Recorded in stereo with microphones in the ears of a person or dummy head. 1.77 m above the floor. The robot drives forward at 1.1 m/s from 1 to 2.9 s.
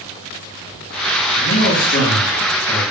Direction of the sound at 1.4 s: 45° left (ahead or behind).